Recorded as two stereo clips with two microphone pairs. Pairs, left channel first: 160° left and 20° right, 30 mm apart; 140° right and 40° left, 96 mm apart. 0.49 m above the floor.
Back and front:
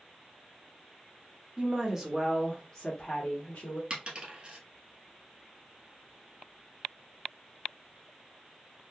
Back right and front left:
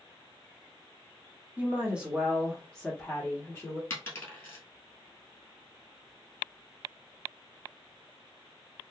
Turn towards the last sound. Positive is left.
turn(degrees=-75)